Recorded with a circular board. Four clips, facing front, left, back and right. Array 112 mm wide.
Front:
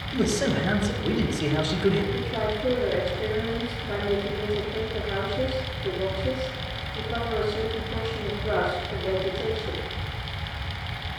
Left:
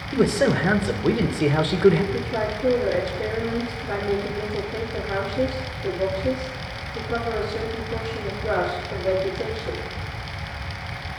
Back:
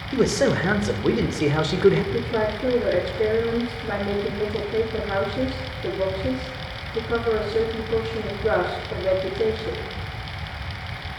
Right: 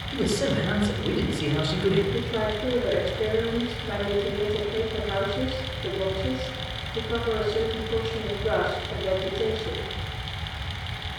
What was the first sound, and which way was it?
A man speaking, 140° left.